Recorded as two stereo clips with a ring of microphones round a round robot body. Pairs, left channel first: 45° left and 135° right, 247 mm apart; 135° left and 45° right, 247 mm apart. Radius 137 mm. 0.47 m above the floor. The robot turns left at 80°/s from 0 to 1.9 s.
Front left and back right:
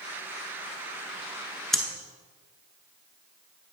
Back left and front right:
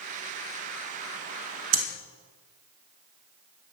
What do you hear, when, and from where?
1.7 s breathing: 45° right, 1.0 m; by 1.8 s 50° right, 1.0 m